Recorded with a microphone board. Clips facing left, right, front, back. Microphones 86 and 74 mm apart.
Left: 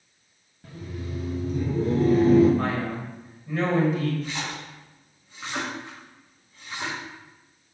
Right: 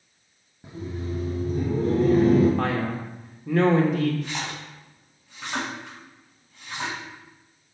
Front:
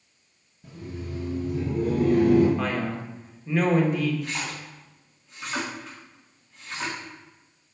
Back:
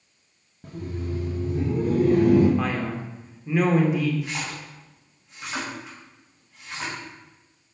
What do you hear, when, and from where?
0.6 s laughter: 160° right, 1.0 m; by 2.5 s 120° right, 2 m
2.6 s a man speaking: 95° right, 1.6 m
4.2 s a splash: 100° right, 4 m